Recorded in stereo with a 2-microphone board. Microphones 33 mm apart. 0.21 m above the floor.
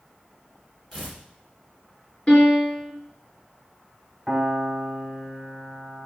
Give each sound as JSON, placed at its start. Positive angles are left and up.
{"t": 0.9, "sound": "tearing paper", "side_deg": 10, "distance_m": 1.5}
{"t": 2.3, "sound": "a piano", "side_deg": 30, "distance_m": 2.5}
{"t": 4.3, "sound": "a piano", "side_deg": -10, "distance_m": 1.3}